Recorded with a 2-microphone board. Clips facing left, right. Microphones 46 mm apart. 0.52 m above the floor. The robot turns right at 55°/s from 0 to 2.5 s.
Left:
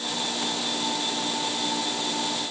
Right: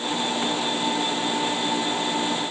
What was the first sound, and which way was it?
Only background noise.